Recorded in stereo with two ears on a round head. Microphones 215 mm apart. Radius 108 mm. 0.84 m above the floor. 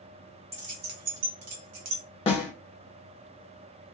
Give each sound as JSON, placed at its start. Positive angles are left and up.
{"t": 0.5, "sound": "keys jangling", "side_deg": -25, "distance_m": 0.8}
{"t": 2.3, "sound": "a snare drum", "side_deg": 25, "distance_m": 1.0}